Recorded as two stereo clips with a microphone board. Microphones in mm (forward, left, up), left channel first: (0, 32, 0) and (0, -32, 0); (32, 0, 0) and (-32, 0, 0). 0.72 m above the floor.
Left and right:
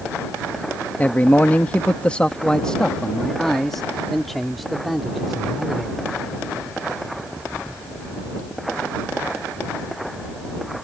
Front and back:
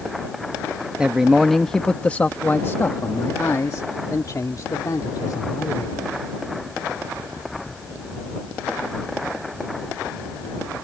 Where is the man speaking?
120° left; by 6.0 s straight ahead.